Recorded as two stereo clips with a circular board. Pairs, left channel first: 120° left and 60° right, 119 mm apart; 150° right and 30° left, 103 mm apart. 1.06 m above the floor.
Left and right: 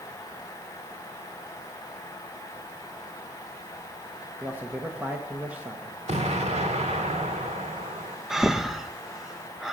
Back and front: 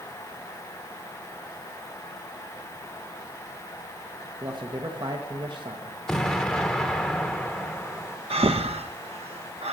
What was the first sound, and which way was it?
A man speaking, 10° left.